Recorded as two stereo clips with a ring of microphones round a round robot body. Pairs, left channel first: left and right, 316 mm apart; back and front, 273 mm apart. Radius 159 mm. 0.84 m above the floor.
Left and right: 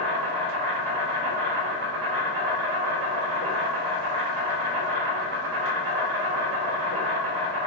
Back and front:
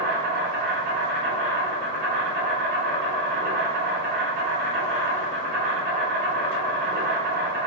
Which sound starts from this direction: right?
An insect, at 0.0 s.